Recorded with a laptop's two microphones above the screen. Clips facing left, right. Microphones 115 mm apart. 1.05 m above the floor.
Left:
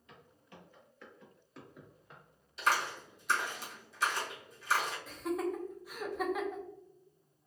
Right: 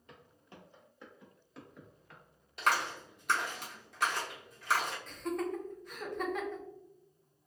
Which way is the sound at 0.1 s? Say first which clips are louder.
Right 1 dB; 40° right (ahead or behind).